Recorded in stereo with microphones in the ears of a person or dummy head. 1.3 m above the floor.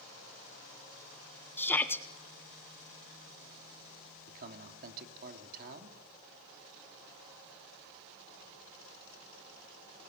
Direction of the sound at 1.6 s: 10° left (ahead or behind).